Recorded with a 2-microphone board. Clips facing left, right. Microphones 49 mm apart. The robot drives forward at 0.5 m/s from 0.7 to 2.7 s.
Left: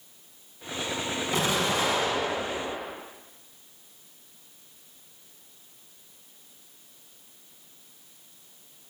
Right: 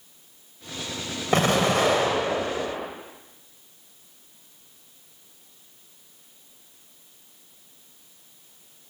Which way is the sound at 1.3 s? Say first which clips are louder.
Right 7 dB; 55° right (ahead or behind).